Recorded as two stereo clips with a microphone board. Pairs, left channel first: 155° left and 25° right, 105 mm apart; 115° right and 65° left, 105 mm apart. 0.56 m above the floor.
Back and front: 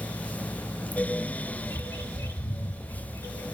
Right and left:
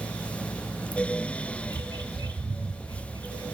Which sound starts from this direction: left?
A bird, at 1.6 s.